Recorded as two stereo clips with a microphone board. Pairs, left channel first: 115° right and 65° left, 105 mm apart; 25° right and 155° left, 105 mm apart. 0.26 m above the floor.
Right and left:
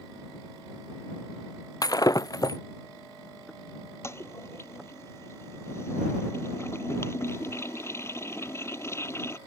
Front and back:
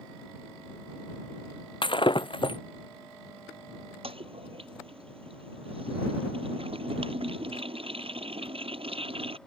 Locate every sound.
1.8 s breaking glass: 60° right
4.0 s a toilet flushing: 175° right